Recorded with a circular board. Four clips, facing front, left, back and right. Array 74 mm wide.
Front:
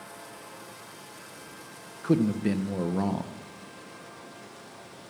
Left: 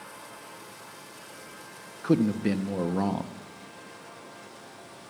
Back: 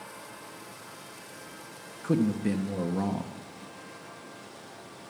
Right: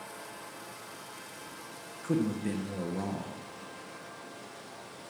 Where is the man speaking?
65° left, 0.7 m.